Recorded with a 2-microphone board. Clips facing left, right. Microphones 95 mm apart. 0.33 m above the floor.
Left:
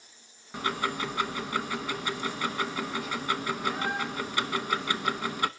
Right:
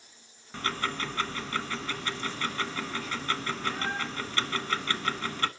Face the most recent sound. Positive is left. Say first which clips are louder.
# left 2 dB
turn(degrees=15)  # may be behind; listen again after turning